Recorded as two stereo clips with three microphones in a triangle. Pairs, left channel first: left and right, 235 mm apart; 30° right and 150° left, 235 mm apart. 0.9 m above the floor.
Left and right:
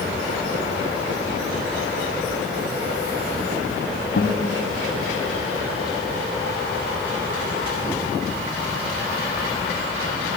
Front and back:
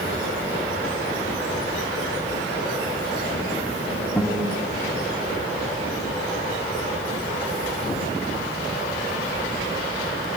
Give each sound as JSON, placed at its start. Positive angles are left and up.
{"t": 4.2, "sound": "a guitar", "azimuth_deg": 50, "distance_m": 3.0}